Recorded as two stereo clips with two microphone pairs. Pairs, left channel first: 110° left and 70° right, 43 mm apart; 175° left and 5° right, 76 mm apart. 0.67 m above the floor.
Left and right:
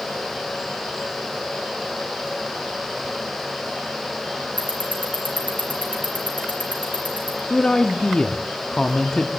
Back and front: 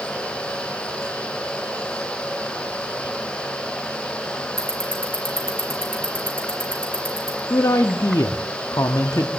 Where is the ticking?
55° left, 4.5 m.